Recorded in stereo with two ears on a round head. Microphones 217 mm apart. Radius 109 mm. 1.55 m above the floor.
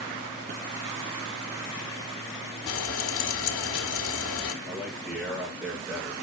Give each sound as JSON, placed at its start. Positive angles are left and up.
{"t": 2.7, "sound": "frying", "side_deg": 60, "distance_m": 1.9}
{"t": 4.7, "sound": "a man speaking", "side_deg": -5, "distance_m": 5.0}